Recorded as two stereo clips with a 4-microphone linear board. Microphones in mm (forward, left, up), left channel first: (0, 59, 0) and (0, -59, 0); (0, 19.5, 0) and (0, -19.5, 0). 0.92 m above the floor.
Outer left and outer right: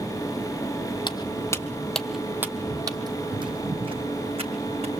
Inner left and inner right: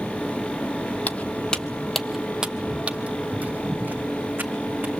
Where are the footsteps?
40° left (ahead or behind), 1.3 m; by 4.9 s 55° right (ahead or behind), 3 m.